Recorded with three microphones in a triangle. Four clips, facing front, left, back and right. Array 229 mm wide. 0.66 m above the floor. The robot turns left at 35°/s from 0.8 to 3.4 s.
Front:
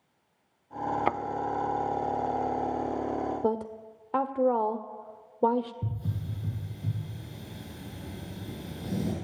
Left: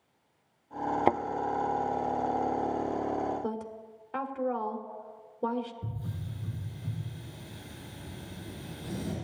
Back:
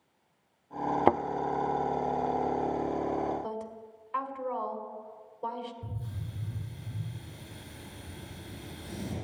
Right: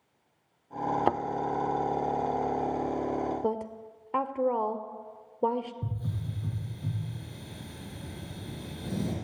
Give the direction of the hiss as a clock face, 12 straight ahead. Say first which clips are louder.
Right 3 dB, front 5 dB; 1 o'clock.